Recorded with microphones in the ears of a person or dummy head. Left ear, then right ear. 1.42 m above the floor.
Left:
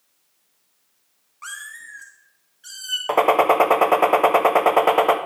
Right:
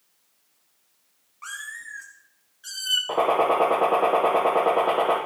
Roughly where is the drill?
I don't hear a drill.